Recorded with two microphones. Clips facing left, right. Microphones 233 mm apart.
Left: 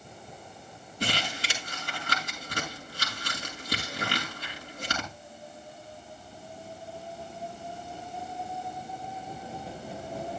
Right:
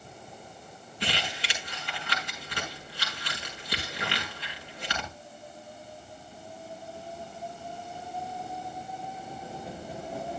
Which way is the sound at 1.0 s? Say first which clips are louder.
Left 2 dB; 45° left (ahead or behind).